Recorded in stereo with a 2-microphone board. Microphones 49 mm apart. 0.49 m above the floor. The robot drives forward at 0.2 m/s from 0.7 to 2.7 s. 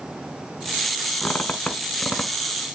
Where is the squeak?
35° left (ahead or behind), 0.9 m; by 2.3 s 30° left (ahead or behind), 1.1 m.